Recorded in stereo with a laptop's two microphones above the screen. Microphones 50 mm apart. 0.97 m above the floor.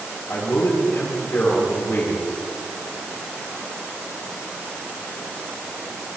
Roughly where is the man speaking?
Left.